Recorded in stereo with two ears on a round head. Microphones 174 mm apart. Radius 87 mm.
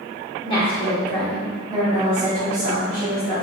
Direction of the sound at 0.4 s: 30° left (ahead or behind).